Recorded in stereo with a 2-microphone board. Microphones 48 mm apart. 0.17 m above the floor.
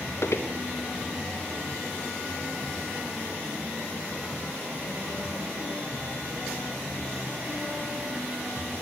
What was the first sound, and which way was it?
Footsteps, 60° left (ahead or behind).